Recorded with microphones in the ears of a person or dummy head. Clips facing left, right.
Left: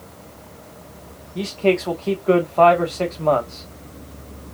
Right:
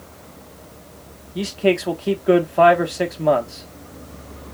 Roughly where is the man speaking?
Centre.